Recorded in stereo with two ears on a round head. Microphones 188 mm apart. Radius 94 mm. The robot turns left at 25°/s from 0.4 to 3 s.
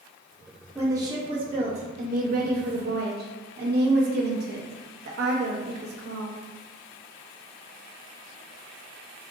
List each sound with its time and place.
0.8 s a woman speaking: 15° right, 0.9 m; by 6.4 s 70° right, 0.9 m